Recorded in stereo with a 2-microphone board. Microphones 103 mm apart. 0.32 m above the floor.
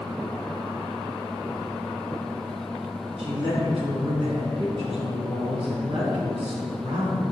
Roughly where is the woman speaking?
Right.